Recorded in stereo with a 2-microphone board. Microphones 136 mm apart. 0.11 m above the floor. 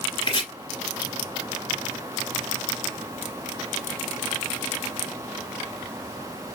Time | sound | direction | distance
0.2 | chopping | 40° left (ahead or behind) | 1.6 m